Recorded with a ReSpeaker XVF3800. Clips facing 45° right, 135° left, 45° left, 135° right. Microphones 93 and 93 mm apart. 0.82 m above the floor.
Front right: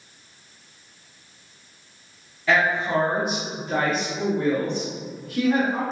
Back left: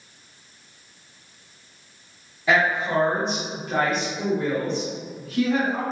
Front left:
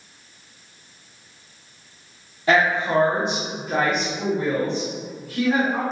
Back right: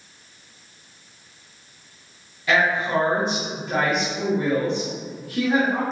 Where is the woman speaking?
70° left, 1.2 m; by 5.8 s 75° right, 2.5 m.